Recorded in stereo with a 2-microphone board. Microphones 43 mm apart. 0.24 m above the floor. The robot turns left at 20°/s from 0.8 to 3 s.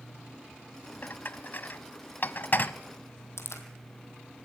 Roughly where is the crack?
Left.